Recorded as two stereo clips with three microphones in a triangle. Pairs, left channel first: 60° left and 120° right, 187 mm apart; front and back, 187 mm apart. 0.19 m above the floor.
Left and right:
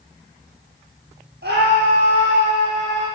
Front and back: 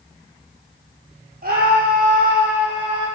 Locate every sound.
1.4 s a scream: 140° right, 5 m; by 3.1 s 120° right, 6 m